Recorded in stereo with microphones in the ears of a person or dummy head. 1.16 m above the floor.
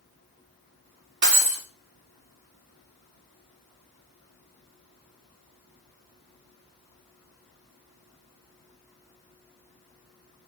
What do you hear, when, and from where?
1.2 s breaking glass: 15° right (ahead or behind), 1.0 m